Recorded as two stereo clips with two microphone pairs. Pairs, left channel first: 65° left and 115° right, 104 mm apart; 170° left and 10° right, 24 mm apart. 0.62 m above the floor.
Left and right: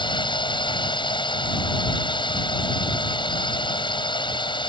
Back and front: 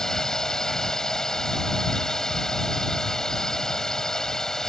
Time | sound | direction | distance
0.0 | a drone | 100° left | ?